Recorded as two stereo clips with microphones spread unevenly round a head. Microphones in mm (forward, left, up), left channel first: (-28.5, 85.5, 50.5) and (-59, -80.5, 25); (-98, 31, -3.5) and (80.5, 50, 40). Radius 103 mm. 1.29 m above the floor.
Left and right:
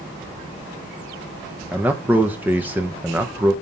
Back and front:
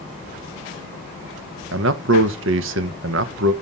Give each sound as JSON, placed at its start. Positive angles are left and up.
{"t": 1.7, "sound": "a man speaking", "azimuth_deg": -15, "distance_m": 0.8}